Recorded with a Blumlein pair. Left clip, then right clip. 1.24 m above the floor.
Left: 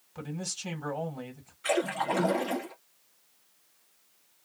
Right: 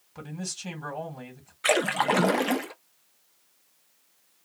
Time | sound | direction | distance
0.1 | a man speaking | straight ahead | 1.7 m
1.6 | a splash | 30° right | 0.6 m